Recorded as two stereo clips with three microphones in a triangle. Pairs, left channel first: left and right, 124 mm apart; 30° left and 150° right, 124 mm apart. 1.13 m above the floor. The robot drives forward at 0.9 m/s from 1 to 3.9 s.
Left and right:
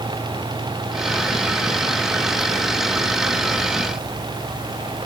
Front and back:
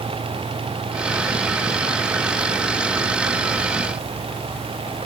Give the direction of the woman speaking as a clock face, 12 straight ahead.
I don't hear a woman speaking.